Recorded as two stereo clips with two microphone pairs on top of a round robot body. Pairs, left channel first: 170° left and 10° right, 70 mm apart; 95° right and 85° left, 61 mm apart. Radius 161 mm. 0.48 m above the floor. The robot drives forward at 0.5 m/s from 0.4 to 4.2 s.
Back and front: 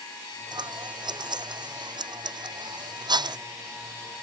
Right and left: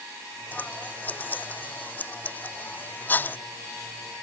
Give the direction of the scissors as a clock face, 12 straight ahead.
1 o'clock.